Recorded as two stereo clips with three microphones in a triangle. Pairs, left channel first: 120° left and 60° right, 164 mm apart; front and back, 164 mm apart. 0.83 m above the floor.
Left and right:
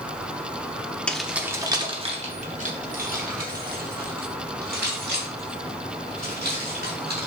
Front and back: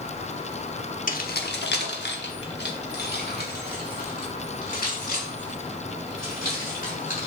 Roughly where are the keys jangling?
Ahead left.